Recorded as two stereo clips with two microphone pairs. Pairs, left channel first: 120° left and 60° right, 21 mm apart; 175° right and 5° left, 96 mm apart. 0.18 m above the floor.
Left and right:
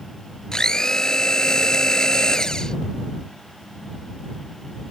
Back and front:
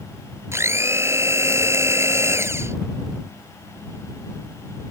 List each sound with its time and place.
0.5 s a blender: 65° left